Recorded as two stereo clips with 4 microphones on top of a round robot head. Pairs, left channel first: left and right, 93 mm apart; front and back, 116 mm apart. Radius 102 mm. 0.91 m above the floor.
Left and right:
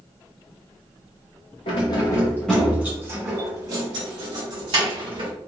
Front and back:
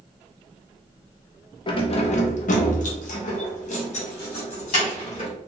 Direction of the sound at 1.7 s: 50° left.